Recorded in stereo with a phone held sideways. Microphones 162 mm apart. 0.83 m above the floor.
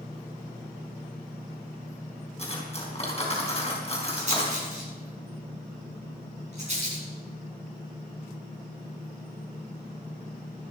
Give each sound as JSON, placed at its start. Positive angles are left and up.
{"t": 2.4, "sound": "cutlery clinking", "side_deg": 40, "distance_m": 4.0}
{"t": 4.2, "sound": "a rattle", "side_deg": -45, "distance_m": 7.5}